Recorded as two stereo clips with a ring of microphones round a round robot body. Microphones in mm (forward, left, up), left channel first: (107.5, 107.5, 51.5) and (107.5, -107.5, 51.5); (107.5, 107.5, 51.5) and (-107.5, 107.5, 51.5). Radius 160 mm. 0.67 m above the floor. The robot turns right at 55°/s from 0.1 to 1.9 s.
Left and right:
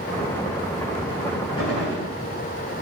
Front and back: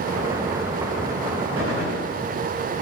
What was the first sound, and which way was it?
A gunshot, 165° left.